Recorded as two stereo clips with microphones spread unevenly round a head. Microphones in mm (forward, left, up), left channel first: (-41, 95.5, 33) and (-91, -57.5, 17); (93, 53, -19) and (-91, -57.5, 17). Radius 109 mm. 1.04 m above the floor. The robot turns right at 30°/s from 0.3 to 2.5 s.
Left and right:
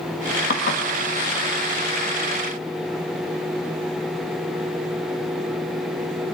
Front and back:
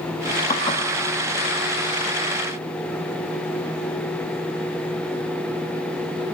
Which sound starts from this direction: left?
Dishes clattering, at 0.5 s.